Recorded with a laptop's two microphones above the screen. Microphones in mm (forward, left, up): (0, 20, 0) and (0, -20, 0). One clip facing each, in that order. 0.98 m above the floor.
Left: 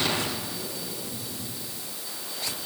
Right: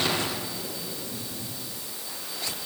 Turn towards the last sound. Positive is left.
No sound to turn to.